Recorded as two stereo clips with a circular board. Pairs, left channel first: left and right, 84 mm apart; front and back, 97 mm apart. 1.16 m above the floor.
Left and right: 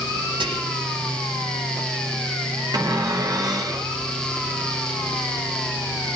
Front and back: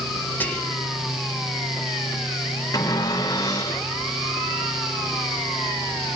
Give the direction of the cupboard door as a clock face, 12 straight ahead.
2 o'clock.